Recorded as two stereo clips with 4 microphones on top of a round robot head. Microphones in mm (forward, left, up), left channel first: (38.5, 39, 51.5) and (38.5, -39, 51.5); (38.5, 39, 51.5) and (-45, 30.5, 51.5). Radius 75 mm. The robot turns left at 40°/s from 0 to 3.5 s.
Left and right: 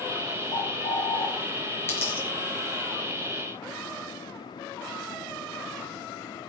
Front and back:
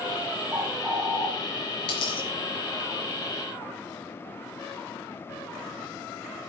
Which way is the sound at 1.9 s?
35° left.